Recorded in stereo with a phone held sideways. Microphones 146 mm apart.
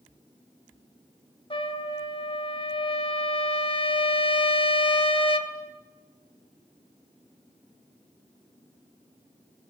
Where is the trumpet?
40° left (ahead or behind), 1.7 m.